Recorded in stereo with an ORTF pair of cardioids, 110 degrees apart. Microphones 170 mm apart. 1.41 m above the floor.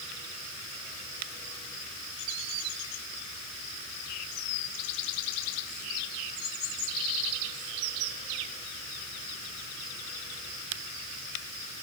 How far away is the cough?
I don't hear a cough.